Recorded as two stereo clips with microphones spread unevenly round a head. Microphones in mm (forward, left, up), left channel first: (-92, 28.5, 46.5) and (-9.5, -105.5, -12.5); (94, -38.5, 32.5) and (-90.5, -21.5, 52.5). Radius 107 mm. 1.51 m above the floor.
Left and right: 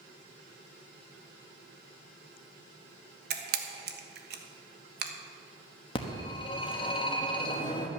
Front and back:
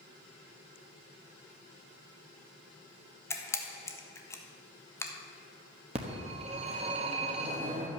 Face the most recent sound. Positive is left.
turn(degrees=130)